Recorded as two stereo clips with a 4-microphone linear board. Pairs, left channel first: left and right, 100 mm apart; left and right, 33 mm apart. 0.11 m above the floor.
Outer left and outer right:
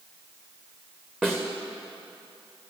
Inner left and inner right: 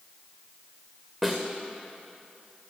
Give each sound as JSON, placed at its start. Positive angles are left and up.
{"t": 1.2, "sound": "a snare drum", "side_deg": -5, "distance_m": 2.0}